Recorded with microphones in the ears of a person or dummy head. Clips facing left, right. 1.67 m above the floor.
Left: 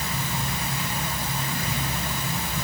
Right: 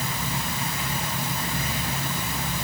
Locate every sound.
Only background noise.